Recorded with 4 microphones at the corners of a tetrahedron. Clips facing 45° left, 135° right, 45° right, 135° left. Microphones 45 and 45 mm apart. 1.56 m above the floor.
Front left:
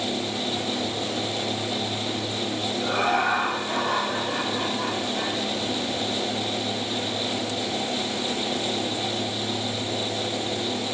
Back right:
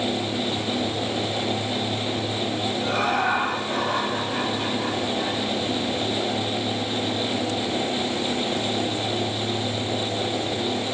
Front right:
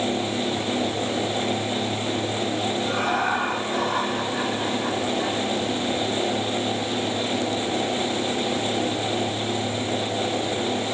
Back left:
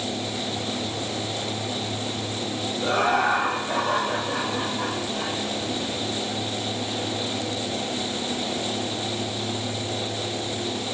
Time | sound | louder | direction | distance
2.8 | laughter | front left 1 dB, back left 5 dB | 135° left | 2 m